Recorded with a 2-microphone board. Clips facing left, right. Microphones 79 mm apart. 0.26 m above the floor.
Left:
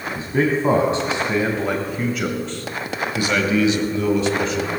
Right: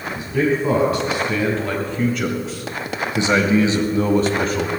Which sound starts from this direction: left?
A man speaking, at 0.1 s.